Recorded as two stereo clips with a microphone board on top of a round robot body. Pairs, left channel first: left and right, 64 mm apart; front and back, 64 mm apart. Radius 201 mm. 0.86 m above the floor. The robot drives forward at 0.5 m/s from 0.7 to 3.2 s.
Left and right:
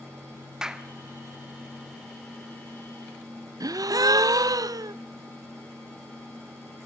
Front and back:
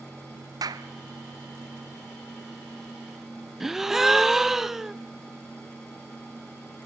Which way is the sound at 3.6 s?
95° right.